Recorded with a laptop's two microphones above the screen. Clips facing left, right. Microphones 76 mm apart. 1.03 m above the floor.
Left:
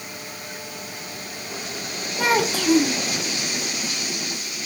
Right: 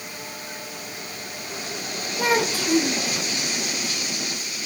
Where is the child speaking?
75° left (ahead or behind), 0.9 m.